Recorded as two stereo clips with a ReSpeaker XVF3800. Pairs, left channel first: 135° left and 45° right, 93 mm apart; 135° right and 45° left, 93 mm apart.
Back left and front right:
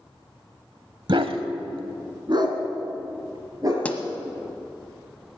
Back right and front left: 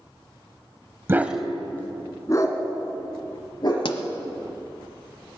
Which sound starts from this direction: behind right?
A pop, at 3.9 s.